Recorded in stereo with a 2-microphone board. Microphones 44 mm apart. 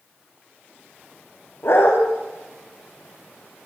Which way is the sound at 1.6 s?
60° left (ahead or behind).